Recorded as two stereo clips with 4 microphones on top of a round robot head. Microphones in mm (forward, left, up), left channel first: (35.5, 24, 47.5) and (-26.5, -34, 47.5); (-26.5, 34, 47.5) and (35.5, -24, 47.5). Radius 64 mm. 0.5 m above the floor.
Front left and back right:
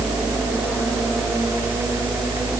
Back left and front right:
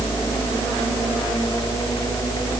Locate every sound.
Only background noise.